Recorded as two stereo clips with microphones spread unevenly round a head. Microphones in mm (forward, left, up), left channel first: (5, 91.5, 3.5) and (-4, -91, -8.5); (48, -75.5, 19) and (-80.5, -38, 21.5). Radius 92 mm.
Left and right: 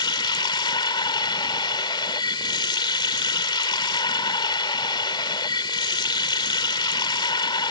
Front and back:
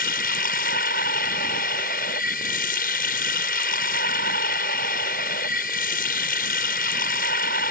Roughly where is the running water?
Ahead.